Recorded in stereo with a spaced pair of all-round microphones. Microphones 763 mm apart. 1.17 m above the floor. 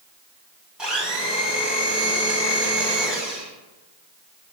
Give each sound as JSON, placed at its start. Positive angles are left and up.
{"t": 0.8, "sound": "a blender", "side_deg": 0, "distance_m": 1.5}